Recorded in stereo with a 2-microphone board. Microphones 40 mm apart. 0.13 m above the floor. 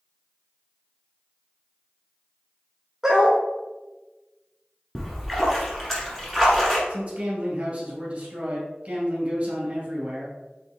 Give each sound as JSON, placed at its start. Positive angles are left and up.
{"t": 3.0, "sound": "a dog barking", "side_deg": -15, "distance_m": 1.1}
{"t": 5.0, "sound": "a splash", "side_deg": 5, "distance_m": 1.5}
{"t": 6.9, "sound": "a man speaking", "side_deg": -35, "distance_m": 2.0}